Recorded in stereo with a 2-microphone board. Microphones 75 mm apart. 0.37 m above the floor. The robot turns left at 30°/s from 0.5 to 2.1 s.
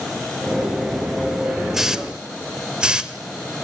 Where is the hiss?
5° right (ahead or behind), 1.2 m; by 3.1 s 10° right (ahead or behind), 1.2 m.